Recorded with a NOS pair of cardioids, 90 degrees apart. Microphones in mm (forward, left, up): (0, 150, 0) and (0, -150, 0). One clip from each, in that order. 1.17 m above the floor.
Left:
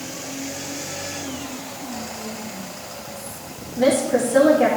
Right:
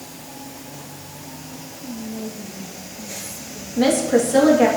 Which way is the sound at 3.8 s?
55° right.